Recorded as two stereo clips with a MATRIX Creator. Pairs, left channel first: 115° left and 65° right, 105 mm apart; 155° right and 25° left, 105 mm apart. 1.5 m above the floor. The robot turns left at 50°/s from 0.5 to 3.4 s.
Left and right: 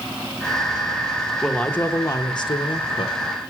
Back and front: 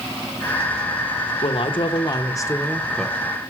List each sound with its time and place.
1.4 s a woman speaking: 160° right, 0.8 m; by 3.2 s 110° left, 0.8 m